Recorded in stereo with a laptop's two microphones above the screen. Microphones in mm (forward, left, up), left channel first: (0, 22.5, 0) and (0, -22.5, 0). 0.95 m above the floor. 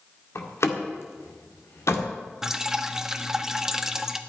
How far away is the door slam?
About 1.9 m.